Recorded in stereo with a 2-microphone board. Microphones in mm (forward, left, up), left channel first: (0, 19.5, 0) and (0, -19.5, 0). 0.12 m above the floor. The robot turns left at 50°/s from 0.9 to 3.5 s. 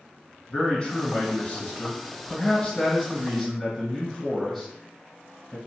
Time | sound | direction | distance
0.5 | a man speaking | 140° left | 1.9 m